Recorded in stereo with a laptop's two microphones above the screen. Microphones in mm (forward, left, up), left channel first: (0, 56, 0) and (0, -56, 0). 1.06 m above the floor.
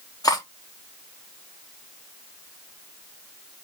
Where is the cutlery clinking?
35° left (ahead or behind), 0.8 m.